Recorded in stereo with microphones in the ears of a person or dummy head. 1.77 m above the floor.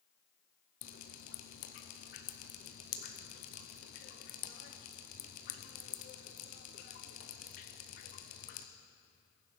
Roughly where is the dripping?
Left.